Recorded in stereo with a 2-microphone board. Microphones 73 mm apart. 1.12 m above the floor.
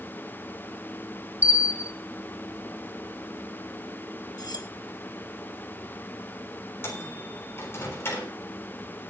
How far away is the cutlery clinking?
About 1.2 m.